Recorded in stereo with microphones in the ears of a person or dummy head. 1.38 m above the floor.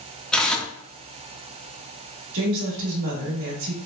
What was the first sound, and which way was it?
Tearing paper, 5° left (ahead or behind).